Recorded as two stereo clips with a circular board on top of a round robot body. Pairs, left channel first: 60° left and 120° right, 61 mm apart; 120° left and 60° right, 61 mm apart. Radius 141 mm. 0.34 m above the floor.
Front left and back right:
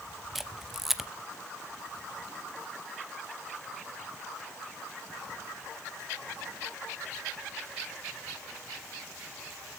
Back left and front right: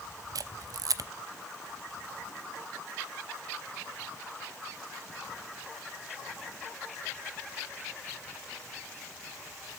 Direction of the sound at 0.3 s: 35° right.